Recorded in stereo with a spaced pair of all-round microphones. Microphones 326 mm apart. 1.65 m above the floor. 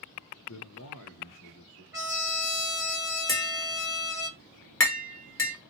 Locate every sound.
0.5 s a man speaking: 55° left (ahead or behind), 0.7 m; by 1.8 s 50° left (ahead or behind), 1.7 m
1.9 s a trumpet: 10° right (ahead or behind), 1.4 m
3.3 s tapping: 40° left (ahead or behind), 2.5 m